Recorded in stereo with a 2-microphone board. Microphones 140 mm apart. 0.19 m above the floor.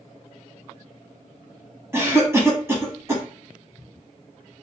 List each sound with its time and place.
1.9 s a cough: 20° right (ahead or behind), 1.0 m